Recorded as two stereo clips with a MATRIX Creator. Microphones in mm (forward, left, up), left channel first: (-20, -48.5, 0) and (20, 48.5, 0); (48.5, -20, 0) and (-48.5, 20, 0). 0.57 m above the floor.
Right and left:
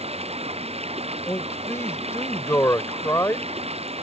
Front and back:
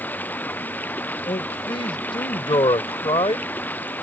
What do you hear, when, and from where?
0.0 s running water: 50° left
1.3 s a man speaking: 50° right